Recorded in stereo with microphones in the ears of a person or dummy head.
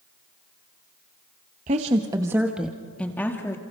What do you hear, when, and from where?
1.7 s a woman speaking: 35° right (ahead or behind), 1.0 m; by 3.6 s 15° left (ahead or behind), 1.9 m